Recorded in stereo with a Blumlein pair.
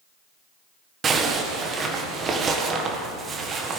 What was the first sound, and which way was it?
A zipper, 20° right.